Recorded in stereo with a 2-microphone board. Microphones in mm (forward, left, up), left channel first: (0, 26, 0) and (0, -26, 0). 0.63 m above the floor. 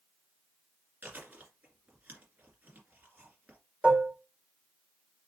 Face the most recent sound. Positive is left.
turn(degrees=-25)  # may be behind; listen again after turning